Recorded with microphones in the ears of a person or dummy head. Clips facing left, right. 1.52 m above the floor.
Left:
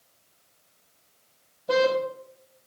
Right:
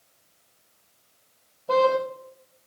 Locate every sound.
1.7 s a car horn: 15° left (ahead or behind), 5 m